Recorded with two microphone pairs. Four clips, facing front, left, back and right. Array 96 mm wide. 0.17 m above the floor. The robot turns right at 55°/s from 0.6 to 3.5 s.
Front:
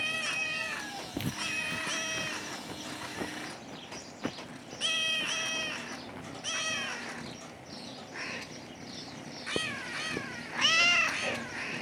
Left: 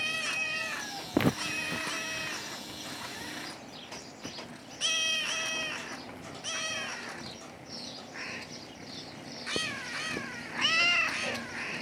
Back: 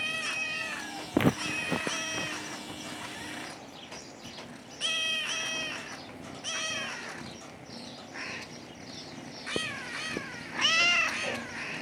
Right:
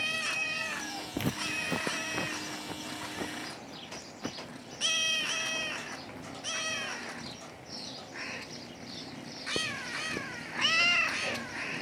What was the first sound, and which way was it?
Footsteps, 135° left.